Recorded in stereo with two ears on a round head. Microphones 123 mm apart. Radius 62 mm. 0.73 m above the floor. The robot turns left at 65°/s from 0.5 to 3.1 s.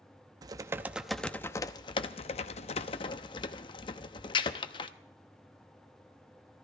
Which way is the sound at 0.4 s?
140° right.